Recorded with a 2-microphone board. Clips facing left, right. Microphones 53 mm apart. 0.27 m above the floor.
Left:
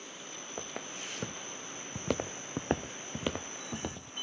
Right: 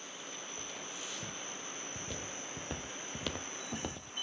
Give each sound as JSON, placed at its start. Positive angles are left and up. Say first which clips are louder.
{"t": 0.6, "sound": "footsteps", "louder": "left 3 dB", "side_deg": 50, "distance_m": 2.5}